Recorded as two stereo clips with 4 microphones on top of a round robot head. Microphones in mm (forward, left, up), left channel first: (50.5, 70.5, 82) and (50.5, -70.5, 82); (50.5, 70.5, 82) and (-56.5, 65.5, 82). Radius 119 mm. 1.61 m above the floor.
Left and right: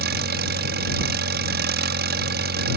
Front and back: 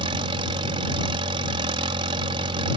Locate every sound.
0.0 s an engine running: 120° right